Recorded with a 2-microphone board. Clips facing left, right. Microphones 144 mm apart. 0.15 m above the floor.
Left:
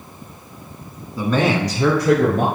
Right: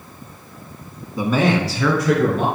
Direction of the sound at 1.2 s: 20° right (ahead or behind).